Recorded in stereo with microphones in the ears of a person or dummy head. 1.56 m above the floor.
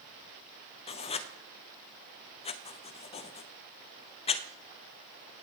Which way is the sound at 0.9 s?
25° left (ahead or behind).